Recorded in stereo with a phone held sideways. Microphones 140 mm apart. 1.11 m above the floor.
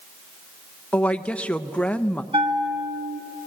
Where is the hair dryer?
I don't hear a hair dryer.